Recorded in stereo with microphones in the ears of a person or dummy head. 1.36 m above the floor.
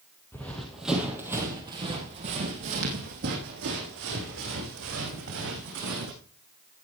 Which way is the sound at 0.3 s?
10° left (ahead or behind).